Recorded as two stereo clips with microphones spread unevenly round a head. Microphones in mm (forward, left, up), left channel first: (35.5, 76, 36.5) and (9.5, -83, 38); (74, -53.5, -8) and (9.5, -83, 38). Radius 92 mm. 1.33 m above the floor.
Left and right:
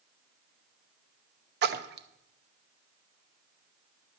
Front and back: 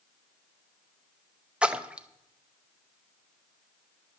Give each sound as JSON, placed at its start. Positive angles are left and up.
{"t": 1.6, "sound": "a splash", "azimuth_deg": -75, "distance_m": 0.7}